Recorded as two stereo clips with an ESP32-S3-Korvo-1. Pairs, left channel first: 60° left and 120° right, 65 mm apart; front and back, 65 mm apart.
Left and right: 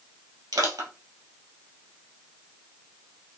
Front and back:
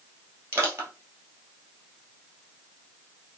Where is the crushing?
130° right, 1.8 m.